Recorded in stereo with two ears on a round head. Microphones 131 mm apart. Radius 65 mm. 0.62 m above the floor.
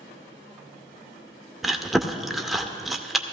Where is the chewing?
Centre (ahead or behind), 0.6 m.